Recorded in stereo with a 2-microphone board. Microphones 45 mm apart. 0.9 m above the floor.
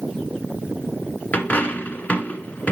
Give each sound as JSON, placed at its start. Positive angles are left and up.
{"t": 1.3, "sound": "a dropped coin", "side_deg": 35, "distance_m": 1.2}